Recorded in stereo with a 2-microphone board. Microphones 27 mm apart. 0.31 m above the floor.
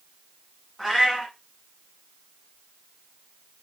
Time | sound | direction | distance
0.8 | a cat meowing | 10° right (ahead or behind) | 1.6 m